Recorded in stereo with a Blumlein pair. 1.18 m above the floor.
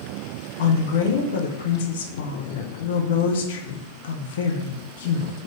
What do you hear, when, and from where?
0.6 s a woman speaking: 60° left, 0.7 m